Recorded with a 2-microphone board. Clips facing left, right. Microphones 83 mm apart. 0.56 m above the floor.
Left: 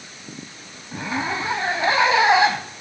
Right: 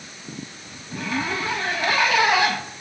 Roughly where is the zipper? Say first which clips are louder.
Left 1 dB; left.